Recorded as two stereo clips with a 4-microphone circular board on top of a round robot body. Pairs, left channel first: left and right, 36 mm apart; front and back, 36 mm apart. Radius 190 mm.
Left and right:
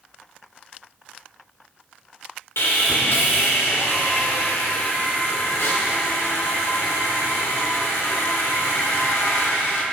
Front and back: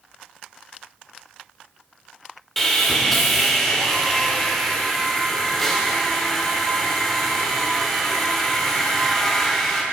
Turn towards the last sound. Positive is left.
turn(degrees=85)